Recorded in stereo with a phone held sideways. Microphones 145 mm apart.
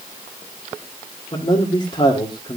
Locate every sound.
1.3 s a man speaking: 40° left (ahead or behind), 2 m